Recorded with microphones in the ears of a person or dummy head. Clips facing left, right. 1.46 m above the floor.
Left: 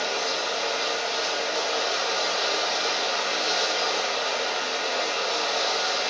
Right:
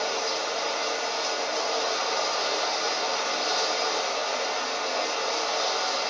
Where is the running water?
50° left (ahead or behind), 1.7 m.